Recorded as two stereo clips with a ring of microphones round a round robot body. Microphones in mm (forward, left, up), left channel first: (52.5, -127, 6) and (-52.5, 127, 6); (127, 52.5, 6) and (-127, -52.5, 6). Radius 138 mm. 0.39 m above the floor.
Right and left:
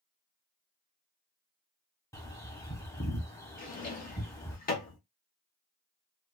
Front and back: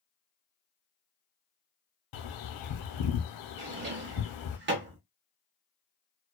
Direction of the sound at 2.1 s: 10° left.